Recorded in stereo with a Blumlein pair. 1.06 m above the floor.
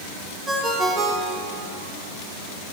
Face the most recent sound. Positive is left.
turn(degrees=-20)